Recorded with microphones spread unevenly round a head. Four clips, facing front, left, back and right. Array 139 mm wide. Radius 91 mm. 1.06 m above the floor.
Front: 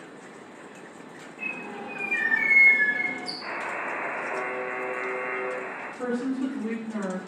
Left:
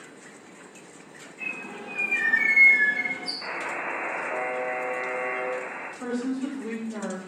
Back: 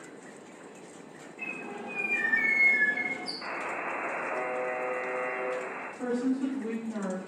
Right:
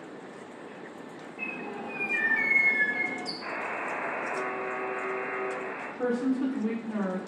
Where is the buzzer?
120° left, 1.4 m.